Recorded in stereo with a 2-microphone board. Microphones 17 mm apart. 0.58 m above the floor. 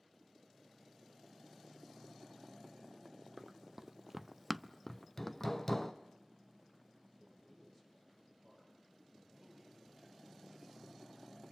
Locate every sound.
3.4 s running footsteps: 10° right (ahead or behind), 1.4 m; by 5.9 s 15° left (ahead or behind), 1.6 m
4.9 s hammering: 25° left (ahead or behind), 1.2 m
7.2 s a man speaking: 20° left (ahead or behind), 8 m
9.1 s a man speaking: 10° right (ahead or behind), 8.5 m